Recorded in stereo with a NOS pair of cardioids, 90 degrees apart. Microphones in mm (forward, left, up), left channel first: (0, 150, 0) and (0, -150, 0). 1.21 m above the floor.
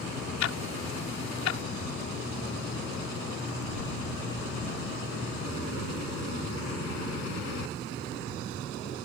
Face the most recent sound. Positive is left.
turn(degrees=65)